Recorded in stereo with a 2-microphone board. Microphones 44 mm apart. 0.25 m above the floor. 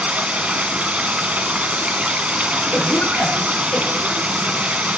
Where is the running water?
30° right (ahead or behind), 1.5 m.